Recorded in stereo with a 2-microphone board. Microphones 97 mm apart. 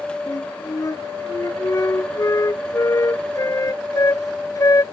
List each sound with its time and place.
0.3 s a flute: 35° left (ahead or behind)